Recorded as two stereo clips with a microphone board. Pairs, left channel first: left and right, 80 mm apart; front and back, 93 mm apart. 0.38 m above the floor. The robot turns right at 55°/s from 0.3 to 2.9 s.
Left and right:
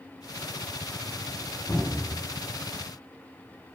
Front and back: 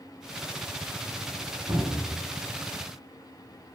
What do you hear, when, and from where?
1.7 s a cupboard door: 125° left, 1.1 m; by 2.2 s 155° left, 1.1 m